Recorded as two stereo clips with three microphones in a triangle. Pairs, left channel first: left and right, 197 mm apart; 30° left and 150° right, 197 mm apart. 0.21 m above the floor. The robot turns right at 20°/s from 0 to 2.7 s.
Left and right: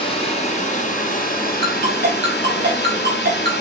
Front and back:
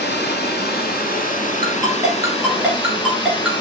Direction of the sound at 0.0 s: 35° left.